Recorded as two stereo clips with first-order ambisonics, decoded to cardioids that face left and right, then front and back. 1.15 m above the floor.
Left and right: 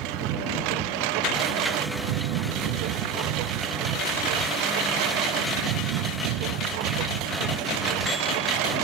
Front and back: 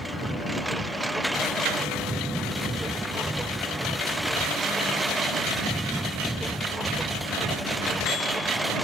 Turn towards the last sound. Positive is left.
turn(degrees=-95)